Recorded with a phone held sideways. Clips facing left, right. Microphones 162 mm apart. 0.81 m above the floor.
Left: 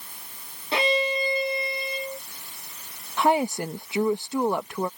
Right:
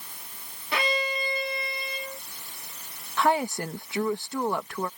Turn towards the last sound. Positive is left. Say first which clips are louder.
# left 2 dB
turn(degrees=20)  # may be behind; listen again after turning